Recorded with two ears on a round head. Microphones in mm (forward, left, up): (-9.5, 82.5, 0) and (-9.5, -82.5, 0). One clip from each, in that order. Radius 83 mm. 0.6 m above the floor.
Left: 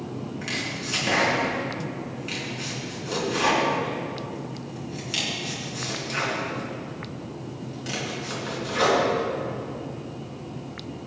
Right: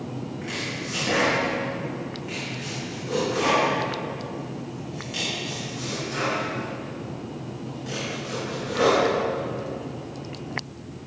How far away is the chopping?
About 4 m.